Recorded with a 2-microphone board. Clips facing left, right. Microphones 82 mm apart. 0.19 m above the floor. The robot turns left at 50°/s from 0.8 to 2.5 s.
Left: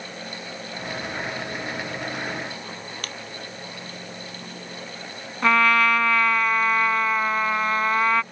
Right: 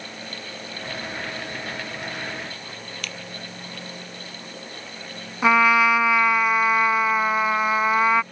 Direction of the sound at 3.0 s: 45° left (ahead or behind).